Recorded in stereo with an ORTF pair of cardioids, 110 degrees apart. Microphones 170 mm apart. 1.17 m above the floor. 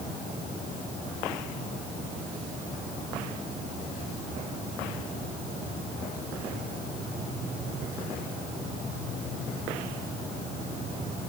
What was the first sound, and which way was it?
Only background noise.